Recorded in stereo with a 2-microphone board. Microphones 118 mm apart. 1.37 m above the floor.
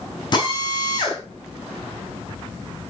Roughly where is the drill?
Left.